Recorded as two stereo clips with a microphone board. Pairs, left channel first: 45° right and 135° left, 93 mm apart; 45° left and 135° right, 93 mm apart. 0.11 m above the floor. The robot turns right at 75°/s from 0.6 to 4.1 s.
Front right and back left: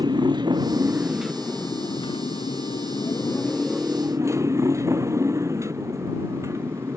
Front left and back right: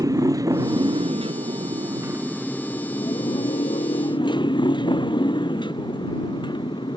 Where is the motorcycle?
175° left; by 7.0 s 75° left.